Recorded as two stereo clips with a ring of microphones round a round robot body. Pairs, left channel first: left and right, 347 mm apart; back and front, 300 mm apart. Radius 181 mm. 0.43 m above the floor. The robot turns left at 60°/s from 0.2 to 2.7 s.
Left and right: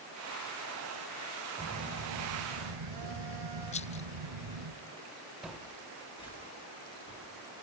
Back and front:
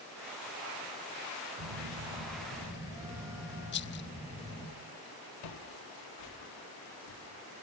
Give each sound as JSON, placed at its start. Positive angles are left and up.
{"t": 1.6, "sound": "a phone buzzing", "azimuth_deg": -15, "distance_m": 3.0}
{"t": 3.7, "sound": "a rattle", "azimuth_deg": 150, "distance_m": 0.6}
{"t": 5.4, "sound": "footsteps", "azimuth_deg": 180, "distance_m": 3.5}